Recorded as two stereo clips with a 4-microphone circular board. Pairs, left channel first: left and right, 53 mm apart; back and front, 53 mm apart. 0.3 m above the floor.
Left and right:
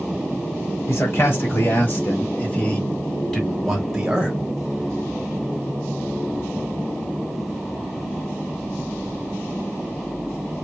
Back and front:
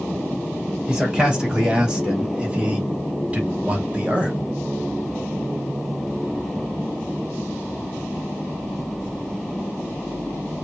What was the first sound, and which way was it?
A man speaking, 70° left.